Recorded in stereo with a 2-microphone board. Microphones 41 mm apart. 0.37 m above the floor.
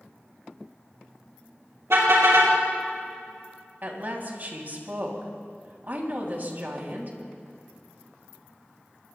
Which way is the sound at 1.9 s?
85° right.